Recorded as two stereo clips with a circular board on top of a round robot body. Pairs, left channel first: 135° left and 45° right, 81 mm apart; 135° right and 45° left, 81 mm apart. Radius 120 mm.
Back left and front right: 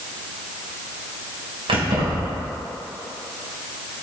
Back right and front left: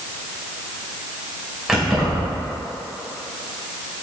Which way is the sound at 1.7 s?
40° right.